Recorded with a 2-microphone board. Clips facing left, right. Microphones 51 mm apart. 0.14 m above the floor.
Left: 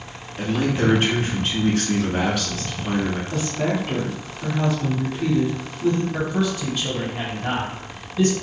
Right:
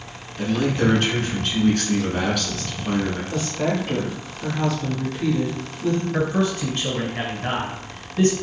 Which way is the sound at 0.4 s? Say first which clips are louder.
Right 1 dB; 15° left (ahead or behind).